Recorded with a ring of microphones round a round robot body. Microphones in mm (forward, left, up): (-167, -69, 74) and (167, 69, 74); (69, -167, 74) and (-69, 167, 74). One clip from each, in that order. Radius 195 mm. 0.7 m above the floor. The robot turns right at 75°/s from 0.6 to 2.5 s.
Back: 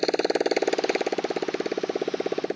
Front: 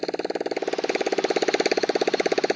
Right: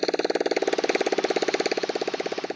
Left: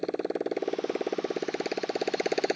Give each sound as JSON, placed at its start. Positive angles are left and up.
{"t": 0.0, "sound": "a motorcycle", "azimuth_deg": -90}